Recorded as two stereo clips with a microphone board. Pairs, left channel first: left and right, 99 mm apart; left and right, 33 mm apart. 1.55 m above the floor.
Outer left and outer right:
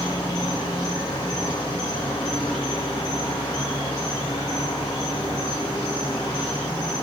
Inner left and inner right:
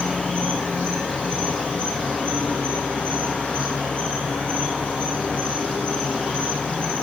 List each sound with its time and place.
0.0 s an insect: 40° left (ahead or behind), 2.5 m